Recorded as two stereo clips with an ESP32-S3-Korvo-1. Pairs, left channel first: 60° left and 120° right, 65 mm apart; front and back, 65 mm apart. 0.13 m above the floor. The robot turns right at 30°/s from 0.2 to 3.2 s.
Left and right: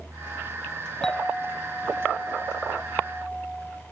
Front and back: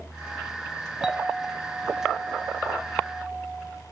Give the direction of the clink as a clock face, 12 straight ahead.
8 o'clock.